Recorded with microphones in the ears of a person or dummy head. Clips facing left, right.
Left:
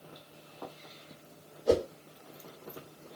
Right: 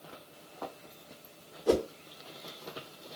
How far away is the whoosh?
About 1.6 m.